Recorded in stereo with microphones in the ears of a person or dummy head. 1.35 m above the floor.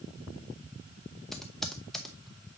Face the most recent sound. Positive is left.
turn(degrees=0)  # may be behind; listen again after turning